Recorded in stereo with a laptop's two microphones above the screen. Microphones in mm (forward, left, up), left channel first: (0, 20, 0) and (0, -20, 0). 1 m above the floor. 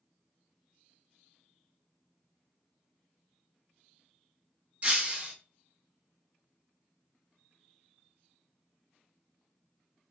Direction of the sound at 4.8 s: 30° right (ahead or behind).